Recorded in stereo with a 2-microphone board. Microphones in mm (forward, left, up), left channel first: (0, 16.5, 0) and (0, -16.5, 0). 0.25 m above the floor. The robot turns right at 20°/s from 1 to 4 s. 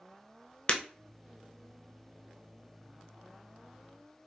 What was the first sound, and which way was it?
Breaking glass, 35° left (ahead or behind).